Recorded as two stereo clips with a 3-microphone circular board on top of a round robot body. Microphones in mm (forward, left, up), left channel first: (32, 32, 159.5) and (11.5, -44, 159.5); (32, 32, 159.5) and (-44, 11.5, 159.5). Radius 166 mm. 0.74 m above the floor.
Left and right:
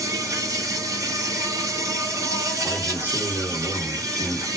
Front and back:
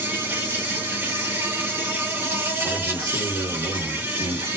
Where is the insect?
115° right, 1.7 m.